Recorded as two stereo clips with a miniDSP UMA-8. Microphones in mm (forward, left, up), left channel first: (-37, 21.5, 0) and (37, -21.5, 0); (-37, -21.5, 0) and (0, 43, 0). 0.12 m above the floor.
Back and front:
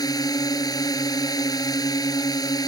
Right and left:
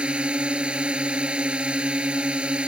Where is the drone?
135° left.